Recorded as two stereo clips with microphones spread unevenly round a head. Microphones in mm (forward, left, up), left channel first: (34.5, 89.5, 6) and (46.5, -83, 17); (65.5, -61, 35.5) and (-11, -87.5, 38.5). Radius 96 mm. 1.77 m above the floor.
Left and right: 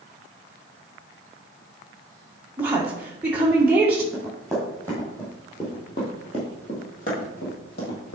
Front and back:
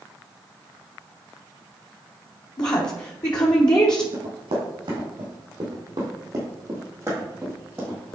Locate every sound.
2.6 s a woman speaking: 5° right, 1.4 m
4.1 s running footsteps: 175° right, 4 m; by 8.2 s 105° left, 3 m